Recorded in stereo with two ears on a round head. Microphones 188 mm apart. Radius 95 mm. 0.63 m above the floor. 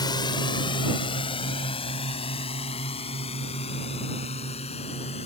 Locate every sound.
0.0 s a drone: 20° left (ahead or behind); by 5.3 s 30° left (ahead or behind)